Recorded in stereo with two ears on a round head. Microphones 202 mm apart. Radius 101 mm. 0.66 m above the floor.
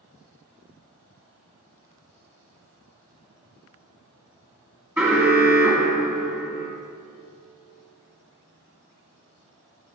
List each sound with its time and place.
5.0 s an alarm: 10° right (ahead or behind), 1.7 m